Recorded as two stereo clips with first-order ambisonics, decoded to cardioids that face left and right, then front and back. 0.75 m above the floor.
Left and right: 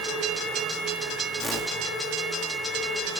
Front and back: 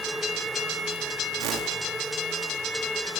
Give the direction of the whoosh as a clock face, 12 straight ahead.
6 o'clock.